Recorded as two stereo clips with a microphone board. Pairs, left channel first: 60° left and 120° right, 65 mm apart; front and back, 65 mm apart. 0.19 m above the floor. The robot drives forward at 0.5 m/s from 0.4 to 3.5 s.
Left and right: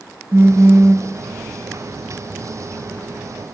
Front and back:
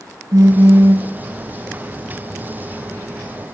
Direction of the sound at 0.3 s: 165° right.